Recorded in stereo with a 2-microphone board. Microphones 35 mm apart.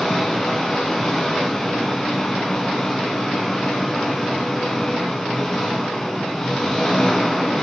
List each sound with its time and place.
0.0 s an engine running: 15° left (ahead or behind), 5 m